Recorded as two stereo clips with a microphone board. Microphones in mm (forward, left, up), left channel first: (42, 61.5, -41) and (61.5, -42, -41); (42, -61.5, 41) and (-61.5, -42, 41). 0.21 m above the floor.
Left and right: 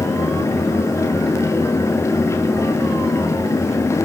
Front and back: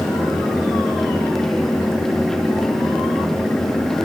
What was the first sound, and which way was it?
Only background noise.